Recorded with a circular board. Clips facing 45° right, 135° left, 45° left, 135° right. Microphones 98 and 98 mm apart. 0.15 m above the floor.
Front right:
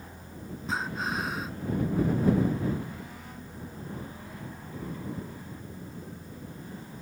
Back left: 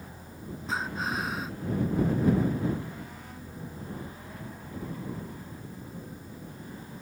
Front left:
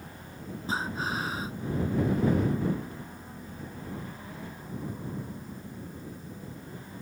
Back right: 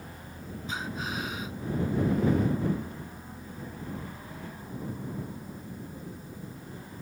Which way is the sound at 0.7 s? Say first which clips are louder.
Even, front left 4 dB; 45° left.